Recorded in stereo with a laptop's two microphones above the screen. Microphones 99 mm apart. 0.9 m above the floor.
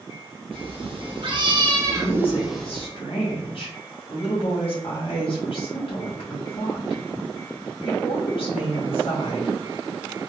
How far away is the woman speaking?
About 1.6 m.